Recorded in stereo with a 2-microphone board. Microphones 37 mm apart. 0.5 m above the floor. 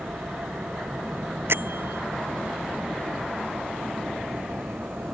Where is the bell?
75° right (ahead or behind).